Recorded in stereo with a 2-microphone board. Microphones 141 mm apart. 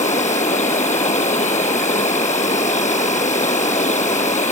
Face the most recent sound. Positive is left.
turn(degrees=60)  # may be behind; listen again after turning